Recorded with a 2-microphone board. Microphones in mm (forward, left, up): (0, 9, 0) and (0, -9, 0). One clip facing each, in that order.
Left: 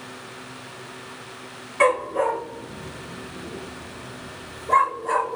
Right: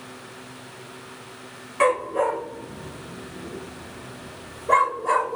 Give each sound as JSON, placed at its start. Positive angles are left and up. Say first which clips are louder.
{"t": 1.8, "sound": "a dog barking", "louder": "left 1 dB", "side_deg": 5, "distance_m": 1.0}